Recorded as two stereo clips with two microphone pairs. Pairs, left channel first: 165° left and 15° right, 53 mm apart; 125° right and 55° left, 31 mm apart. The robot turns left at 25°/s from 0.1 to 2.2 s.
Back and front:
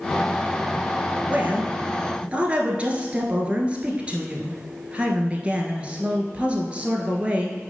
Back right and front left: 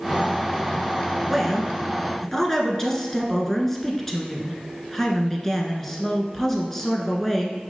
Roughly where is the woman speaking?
Ahead right.